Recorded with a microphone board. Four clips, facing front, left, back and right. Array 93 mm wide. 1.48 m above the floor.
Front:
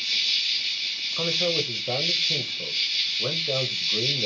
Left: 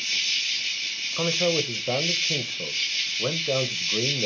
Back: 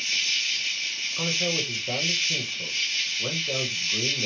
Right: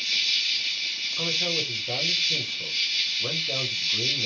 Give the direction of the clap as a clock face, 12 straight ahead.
No clap in this recording.